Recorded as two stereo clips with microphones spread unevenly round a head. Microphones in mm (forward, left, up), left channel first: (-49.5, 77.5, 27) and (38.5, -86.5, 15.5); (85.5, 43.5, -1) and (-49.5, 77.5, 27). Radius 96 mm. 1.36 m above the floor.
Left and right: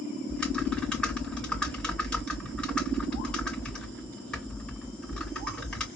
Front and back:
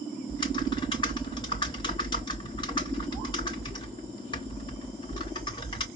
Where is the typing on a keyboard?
40° left, 1.5 m.